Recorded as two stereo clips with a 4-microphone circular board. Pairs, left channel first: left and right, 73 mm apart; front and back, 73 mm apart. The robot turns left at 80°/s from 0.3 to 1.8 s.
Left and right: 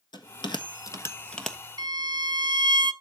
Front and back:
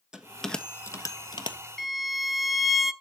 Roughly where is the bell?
Left.